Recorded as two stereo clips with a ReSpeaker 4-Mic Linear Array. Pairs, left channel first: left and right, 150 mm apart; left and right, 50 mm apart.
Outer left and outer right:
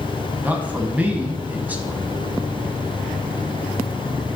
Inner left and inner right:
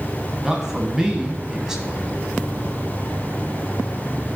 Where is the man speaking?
10° right (ahead or behind), 1.1 m.